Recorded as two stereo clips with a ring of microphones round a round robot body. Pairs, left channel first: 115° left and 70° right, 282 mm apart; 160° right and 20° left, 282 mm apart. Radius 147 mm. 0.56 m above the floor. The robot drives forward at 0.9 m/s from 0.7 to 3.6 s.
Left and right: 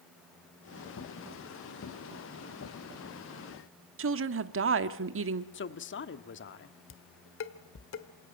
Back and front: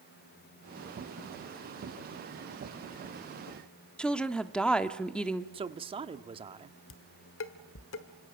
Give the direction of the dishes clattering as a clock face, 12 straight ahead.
7 o'clock.